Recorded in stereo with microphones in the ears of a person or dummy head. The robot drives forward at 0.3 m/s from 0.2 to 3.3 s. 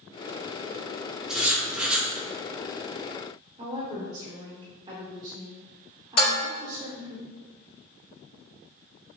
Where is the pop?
No pop in this recording.